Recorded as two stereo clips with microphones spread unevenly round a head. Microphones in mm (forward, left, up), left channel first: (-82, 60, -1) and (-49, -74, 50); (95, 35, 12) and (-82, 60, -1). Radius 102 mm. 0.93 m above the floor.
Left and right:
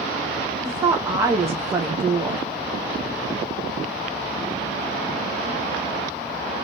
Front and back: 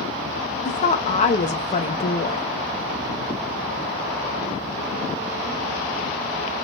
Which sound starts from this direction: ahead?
A woman speaking, at 0.7 s.